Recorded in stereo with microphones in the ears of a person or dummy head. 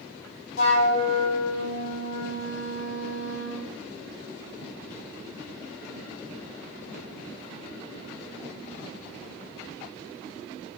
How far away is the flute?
About 0.8 m.